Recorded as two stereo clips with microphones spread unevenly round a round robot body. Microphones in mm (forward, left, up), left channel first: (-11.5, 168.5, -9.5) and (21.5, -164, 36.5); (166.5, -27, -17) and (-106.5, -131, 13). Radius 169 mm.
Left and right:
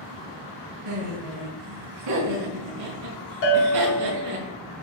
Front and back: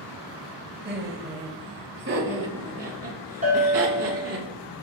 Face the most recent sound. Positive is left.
turn(degrees=130)